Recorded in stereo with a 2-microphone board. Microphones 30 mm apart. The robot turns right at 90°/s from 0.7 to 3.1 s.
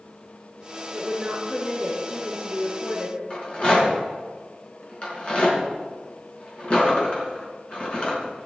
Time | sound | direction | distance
0.9 | a woman speaking | 55° right | 6.5 m
3.3 | a rattle | 40° left (ahead or behind) | 5 m